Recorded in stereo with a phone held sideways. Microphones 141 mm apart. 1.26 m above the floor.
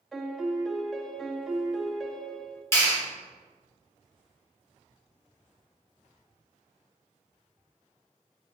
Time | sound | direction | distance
0.1 | a piano | centre (ahead or behind) | 0.8 m
2.7 | a clap | 20° left (ahead or behind) | 2.5 m